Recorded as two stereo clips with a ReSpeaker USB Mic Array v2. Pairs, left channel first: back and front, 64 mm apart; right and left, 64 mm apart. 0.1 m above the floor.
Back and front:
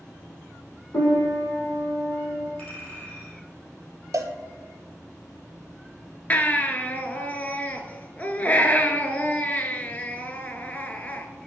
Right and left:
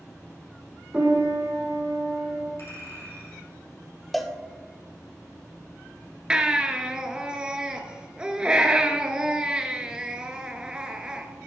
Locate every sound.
0.9 s a piano: 160° left, 2.5 m
2.6 s a clink: 115° right, 2.5 m
4.1 s a cowbell: straight ahead, 0.7 m
6.3 s a baby crying: 150° left, 0.6 m